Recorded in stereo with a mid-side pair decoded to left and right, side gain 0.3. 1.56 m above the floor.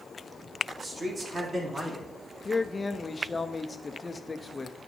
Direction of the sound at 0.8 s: 55° right.